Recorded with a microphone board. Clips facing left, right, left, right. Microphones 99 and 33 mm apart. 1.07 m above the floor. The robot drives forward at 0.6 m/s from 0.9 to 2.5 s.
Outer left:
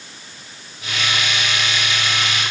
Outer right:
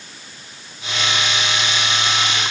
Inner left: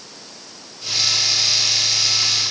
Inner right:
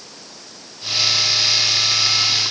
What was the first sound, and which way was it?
Only background noise.